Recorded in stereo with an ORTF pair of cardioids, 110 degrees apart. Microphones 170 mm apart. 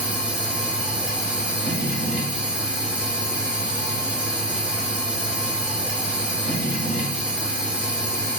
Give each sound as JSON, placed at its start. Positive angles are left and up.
{"t": 0.0, "sound": "a machine running", "azimuth_deg": -5, "distance_m": 0.8}